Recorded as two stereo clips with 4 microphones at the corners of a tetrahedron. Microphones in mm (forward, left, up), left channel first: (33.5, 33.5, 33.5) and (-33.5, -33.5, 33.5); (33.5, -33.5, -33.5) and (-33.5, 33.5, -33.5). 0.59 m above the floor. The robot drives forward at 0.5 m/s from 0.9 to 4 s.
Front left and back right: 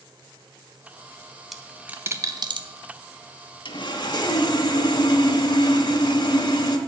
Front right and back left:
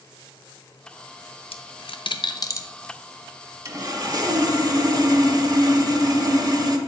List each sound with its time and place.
1.5 s a dropped coin: 45° right, 0.6 m; by 2.7 s 105° right, 0.5 m
3.6 s sawing: 80° left, 0.9 m; by 6.8 s 90° left, 0.9 m